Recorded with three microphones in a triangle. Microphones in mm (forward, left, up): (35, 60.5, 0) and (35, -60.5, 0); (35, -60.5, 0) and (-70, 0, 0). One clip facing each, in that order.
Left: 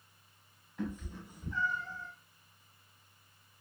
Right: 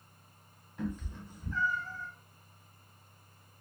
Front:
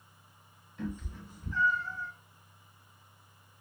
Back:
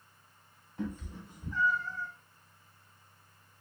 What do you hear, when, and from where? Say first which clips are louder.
0.8 s a cat meowing: right 1 dB, back 1 dB; straight behind, 1.1 m; by 2.1 s 40° left, 1.1 m